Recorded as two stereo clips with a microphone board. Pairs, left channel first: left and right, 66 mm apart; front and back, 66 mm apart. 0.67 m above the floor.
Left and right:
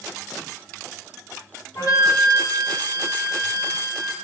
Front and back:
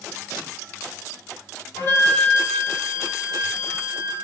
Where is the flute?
55° left, 5 m.